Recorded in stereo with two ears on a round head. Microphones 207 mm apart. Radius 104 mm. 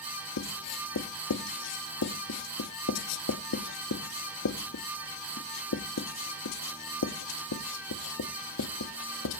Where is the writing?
80° left, 0.8 m.